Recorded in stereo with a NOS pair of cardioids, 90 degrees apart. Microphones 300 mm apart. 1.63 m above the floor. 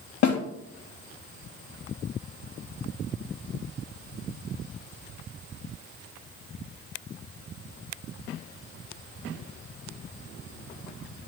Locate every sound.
0.2 s a snare drum: 65° left, 2.5 m